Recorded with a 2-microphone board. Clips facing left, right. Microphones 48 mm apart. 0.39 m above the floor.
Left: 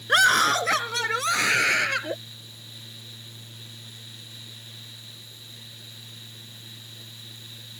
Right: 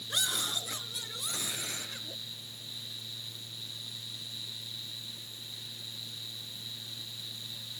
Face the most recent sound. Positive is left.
turn(degrees=75)  # may be behind; listen again after turning